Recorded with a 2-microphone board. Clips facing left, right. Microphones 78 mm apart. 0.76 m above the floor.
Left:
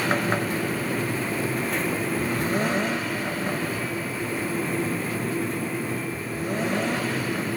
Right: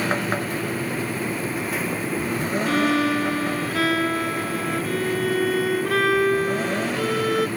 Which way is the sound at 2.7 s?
80° right.